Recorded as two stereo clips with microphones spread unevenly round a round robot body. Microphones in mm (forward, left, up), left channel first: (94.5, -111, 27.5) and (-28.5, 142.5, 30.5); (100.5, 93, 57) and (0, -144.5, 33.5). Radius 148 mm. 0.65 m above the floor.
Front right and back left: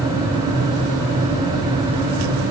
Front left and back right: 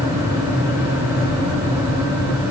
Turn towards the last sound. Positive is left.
No sound to turn to.